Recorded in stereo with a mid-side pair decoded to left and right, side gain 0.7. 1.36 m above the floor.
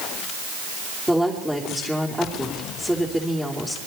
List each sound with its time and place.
1.1 s a woman speaking: 5° right, 3.5 m